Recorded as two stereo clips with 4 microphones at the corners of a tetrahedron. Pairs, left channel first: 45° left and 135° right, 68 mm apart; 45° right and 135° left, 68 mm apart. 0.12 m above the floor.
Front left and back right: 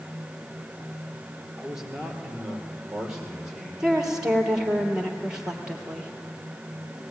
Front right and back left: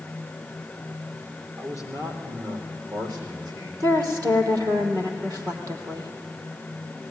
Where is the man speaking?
145° left, 2.5 m.